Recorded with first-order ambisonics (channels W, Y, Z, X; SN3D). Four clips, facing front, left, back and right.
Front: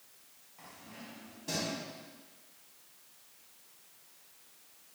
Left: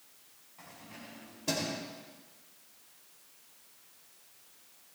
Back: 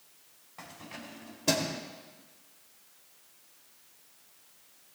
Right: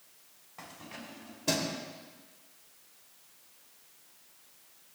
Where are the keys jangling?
140° right, 3 m; by 1.8 s 175° right, 2.5 m.